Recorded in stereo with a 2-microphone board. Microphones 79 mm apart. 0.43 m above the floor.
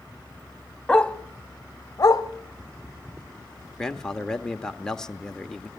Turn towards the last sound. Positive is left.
turn(degrees=10)  # may be behind; listen again after turning